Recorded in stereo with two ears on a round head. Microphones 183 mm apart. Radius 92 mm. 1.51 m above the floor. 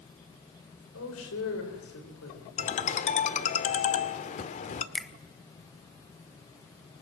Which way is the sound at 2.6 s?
35° left (ahead or behind).